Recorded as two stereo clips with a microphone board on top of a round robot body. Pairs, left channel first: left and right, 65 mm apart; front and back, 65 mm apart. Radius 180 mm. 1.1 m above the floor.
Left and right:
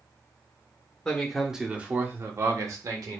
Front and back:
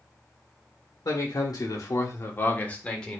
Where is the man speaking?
10° left, 1.4 m; by 3.2 s 80° right, 1.6 m.